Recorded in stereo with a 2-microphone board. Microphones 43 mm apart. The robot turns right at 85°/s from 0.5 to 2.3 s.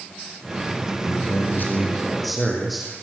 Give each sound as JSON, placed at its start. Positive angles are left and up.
{"t": 1.0, "sound": "a man speaking", "azimuth_deg": 70, "distance_m": 7.0}